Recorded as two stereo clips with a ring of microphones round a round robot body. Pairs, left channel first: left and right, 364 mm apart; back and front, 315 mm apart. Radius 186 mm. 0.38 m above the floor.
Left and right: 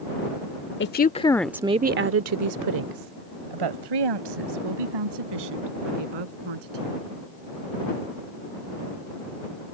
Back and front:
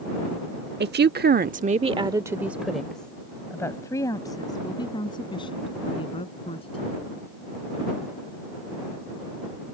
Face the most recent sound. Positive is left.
turn(degrees=-105)